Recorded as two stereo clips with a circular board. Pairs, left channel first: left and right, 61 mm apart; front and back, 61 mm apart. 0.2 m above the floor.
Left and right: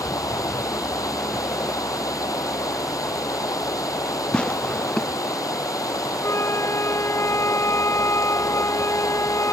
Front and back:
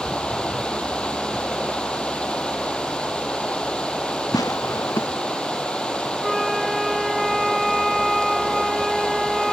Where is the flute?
90° left.